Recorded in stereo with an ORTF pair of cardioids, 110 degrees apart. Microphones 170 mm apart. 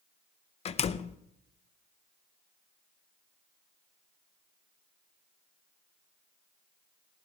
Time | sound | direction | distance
0.7 | a door slam | 35° left | 0.6 m